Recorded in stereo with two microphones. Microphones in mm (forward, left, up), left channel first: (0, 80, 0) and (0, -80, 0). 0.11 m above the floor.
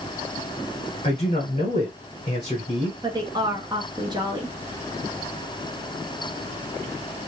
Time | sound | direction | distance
1.0 | a man speaking | 40° left (ahead or behind) | 1.4 m
3.0 | a woman speaking | 25° right (ahead or behind) | 1.2 m